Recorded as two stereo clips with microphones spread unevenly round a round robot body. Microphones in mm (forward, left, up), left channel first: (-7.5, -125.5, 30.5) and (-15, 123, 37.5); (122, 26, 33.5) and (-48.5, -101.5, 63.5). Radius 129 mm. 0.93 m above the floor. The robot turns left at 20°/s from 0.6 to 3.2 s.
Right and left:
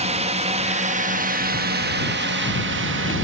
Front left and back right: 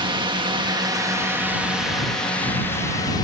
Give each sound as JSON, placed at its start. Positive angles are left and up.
{"t": 0.0, "sound": "a drone", "azimuth_deg": 150}